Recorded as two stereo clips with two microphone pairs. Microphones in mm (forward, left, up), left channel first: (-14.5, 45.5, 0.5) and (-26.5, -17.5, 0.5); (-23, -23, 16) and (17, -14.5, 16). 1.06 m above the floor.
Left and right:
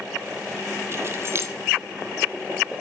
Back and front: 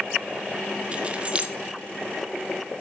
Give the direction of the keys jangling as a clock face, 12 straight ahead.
2 o'clock.